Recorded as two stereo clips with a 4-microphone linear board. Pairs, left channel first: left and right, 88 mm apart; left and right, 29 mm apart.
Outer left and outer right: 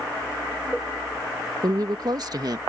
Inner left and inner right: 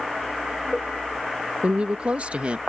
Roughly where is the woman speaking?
Right.